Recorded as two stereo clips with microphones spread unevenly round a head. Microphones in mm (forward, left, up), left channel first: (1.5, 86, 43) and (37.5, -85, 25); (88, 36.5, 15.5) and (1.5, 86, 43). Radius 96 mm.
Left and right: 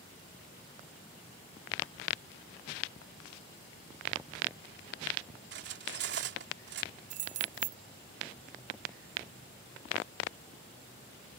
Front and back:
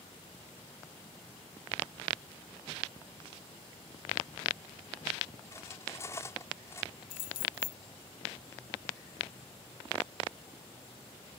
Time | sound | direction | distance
5.5 | cutlery clinking | 115° right | ?
7.1 | keys jangling | 65° right | ?